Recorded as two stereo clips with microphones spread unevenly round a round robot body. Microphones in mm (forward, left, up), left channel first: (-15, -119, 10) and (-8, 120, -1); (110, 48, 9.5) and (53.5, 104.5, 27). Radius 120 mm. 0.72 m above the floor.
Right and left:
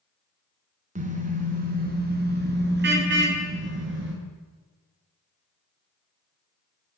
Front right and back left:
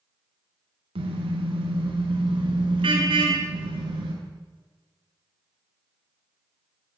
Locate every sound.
0.9 s a car horn: 150° left, 4.5 m; by 4.1 s 130° left, 6.5 m